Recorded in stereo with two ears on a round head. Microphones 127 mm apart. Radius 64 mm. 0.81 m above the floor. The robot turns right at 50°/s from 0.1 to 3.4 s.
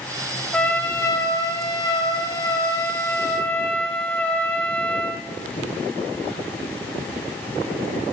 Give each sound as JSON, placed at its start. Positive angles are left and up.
{"t": 0.5, "sound": "a trumpet", "azimuth_deg": 20, "distance_m": 0.6}